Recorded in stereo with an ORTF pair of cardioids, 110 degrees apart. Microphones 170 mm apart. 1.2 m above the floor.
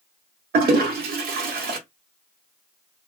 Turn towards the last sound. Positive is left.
turn(degrees=-65)